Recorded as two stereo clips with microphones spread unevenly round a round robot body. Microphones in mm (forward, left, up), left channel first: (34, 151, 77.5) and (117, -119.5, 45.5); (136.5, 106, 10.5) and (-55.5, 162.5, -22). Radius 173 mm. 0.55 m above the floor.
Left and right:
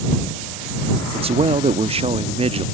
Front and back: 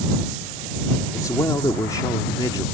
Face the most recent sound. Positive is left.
turn(degrees=-95)